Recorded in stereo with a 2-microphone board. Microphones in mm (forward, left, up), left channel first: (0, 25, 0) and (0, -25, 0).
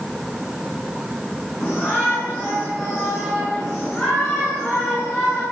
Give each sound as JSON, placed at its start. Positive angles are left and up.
{"t": 1.6, "sound": "a shout", "side_deg": 10, "distance_m": 10.0}